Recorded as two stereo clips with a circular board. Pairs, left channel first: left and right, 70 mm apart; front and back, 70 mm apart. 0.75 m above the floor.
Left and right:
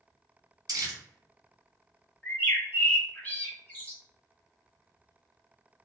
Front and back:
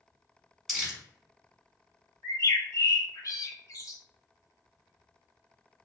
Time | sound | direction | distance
0.7 | crumpling | 85° right | 1.2 m
2.2 | a bird | 25° left | 0.9 m